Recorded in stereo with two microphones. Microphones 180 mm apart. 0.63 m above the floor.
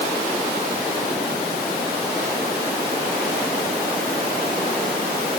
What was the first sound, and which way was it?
Only background noise.